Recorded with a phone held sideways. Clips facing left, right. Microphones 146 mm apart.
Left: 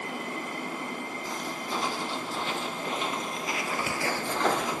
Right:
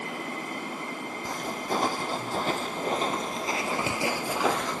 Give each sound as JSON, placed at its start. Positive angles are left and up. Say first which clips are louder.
{"t": 1.2, "sound": "footsteps", "louder": "right 6 dB", "side_deg": -50, "distance_m": 4.0}